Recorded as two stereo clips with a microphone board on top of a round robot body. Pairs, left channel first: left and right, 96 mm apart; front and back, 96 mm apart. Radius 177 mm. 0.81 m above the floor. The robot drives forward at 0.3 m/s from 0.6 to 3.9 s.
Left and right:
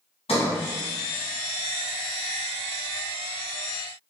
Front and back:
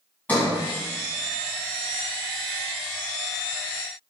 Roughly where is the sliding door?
Left.